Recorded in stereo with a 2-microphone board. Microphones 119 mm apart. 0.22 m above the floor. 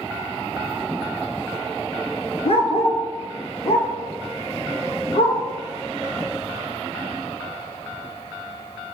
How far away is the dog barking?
About 1.2 m.